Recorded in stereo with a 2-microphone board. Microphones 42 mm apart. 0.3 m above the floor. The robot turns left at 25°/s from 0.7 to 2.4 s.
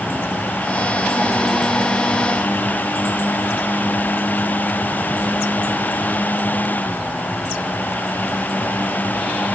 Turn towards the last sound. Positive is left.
No sound to turn to.